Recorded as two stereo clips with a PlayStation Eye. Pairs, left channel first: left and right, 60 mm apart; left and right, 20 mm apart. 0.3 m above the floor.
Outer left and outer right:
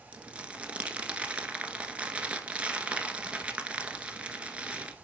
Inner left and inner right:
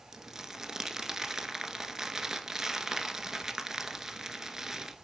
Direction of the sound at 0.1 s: 20° right (ahead or behind).